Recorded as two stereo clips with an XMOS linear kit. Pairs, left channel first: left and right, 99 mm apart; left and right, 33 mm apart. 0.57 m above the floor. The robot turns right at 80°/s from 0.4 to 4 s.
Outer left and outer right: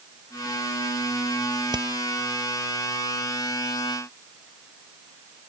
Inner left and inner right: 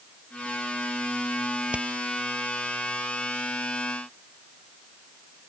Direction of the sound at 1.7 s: 45° right (ahead or behind).